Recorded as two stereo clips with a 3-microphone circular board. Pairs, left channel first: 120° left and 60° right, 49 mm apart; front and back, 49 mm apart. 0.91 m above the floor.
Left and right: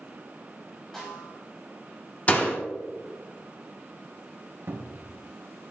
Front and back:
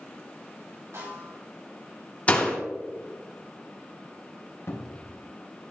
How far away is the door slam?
About 1.7 m.